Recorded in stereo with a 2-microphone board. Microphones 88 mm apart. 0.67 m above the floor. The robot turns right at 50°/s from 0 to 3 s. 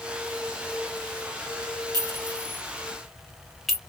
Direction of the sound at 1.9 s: 50° right (ahead or behind).